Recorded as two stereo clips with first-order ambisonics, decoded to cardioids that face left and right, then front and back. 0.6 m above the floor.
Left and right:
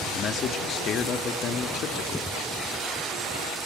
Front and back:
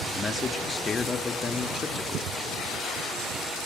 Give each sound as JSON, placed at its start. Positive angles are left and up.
{"t": 0.1, "sound": "a man speaking", "azimuth_deg": 65, "distance_m": 1.3}